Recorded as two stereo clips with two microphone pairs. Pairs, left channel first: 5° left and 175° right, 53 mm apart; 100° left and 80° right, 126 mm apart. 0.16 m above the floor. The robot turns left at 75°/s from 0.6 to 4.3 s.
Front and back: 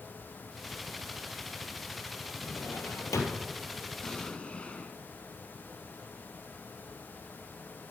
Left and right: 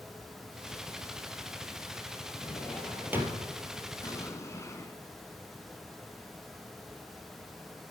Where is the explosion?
75° left, 1.0 m; by 5.0 s 55° left, 1.0 m.